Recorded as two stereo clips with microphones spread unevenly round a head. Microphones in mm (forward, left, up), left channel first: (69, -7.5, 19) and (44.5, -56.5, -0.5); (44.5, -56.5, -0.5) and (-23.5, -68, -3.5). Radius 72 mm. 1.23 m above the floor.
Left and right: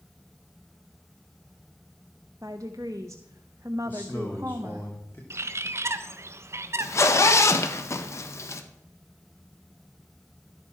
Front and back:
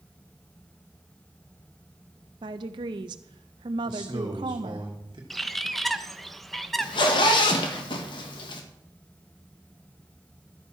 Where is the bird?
75° right, 0.8 m.